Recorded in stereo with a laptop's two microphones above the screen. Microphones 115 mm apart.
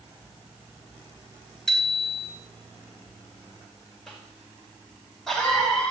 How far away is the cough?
About 5 m.